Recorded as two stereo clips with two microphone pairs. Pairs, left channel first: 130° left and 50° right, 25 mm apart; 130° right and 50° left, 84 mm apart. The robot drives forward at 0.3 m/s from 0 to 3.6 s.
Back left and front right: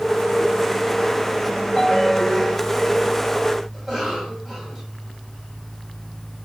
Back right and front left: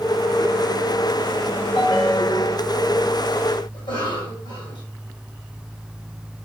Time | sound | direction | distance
1.8 | a ringtone | 165° right | 0.8 m
3.7 | a cough | 135° right | 3 m